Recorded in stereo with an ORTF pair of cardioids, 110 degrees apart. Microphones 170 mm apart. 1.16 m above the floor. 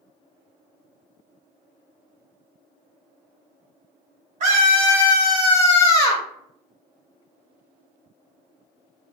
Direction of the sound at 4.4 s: 50° right.